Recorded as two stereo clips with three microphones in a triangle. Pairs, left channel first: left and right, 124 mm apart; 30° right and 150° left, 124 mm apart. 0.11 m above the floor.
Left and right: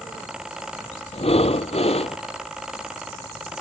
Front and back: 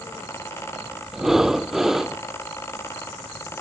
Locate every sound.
1.1 s breathing: 65° left